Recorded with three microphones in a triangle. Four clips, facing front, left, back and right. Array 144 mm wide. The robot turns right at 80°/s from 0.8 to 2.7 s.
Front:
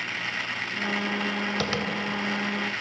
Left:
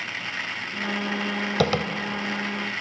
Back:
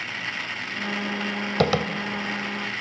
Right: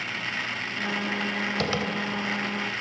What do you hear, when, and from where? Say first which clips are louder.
1.6 s tapping: left 6 dB, back 11 dB; 140° left, 2.5 m; by 1.9 s 165° left, 2.5 m